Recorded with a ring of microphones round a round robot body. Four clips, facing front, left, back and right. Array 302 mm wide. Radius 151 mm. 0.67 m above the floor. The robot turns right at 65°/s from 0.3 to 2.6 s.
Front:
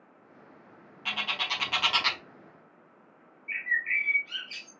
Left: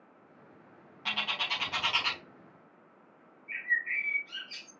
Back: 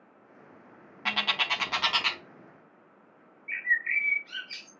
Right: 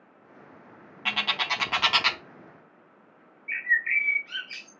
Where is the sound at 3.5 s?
105° right, 1.1 m.